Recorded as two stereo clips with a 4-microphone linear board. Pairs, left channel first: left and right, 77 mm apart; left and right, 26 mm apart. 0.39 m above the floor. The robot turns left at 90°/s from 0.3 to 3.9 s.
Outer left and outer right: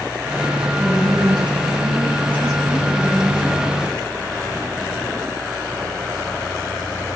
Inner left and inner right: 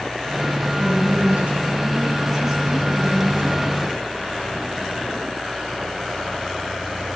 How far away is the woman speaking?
About 4 m.